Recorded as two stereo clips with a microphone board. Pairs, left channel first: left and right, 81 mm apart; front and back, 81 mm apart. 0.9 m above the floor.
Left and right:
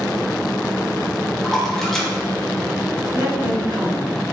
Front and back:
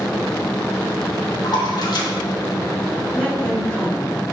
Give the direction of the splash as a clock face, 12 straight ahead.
12 o'clock.